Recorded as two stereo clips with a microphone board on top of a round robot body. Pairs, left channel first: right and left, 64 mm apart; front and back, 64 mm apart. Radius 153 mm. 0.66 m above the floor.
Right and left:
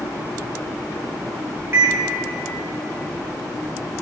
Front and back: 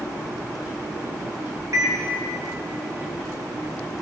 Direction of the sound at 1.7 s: 140° left.